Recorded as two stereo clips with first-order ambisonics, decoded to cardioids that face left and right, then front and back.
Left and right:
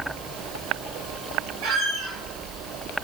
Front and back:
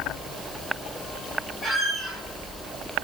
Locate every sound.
1.6 s a squeak: 85° right, 1.3 m